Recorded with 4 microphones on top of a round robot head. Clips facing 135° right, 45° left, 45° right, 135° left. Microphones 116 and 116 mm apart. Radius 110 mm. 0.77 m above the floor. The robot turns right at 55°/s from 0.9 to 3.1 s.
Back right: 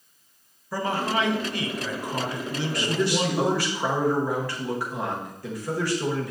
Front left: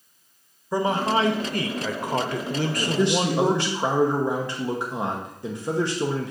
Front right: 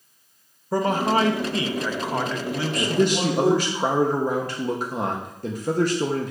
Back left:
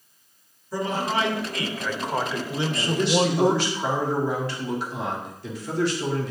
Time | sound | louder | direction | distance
0.7 | a man speaking | front left 4 dB, front right 5 dB | 25° right | 0.8 m
2.8 | a man speaking | front left 1 dB, front right 1 dB | 35° right | 1.0 m